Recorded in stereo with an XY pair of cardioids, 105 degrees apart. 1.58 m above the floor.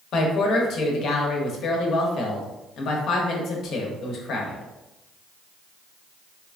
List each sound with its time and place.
0.1 s a woman speaking: 70° left, 0.8 m